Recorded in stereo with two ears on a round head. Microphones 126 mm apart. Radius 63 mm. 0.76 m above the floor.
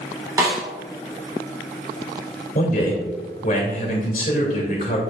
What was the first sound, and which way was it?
A snare drum, 20° right (ahead or behind).